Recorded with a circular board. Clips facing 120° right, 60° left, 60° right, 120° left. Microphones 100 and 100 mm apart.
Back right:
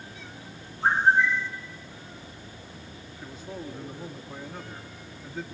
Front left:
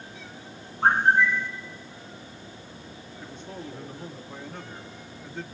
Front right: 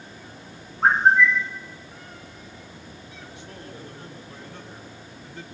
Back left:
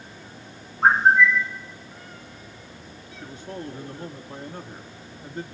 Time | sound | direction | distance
0.8 | a bird | 30° left | 1.3 m
3.2 | a man speaking | 155° left | 1.8 m